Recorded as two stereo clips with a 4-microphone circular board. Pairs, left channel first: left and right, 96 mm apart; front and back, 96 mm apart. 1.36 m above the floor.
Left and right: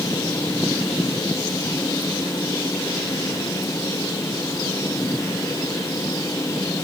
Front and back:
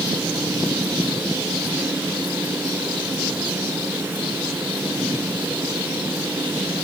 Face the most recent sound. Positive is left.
No sound to turn to.